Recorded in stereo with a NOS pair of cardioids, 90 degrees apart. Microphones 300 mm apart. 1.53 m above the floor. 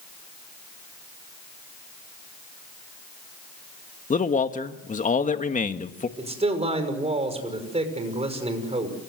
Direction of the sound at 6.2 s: 20° right.